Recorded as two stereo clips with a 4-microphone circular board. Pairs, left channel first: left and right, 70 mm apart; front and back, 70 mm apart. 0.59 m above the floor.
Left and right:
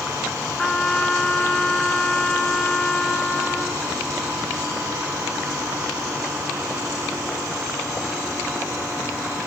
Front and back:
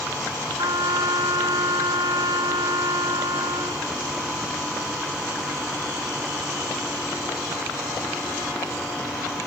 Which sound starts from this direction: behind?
A trumpet, at 0.6 s.